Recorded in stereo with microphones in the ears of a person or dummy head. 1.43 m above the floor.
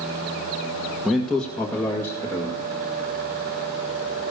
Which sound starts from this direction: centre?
A man speaking, at 1.1 s.